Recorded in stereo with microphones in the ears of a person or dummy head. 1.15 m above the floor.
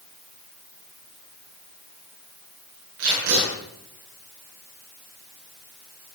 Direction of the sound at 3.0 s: 80° right.